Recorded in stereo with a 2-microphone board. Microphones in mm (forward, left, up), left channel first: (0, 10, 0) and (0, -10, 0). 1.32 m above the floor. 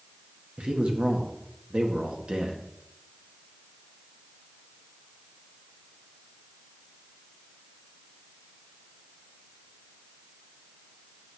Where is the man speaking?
65° right (ahead or behind), 1.5 m.